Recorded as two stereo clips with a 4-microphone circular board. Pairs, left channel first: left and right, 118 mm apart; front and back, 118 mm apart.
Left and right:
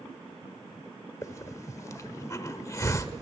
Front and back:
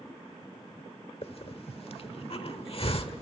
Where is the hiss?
30° left, 1.2 m.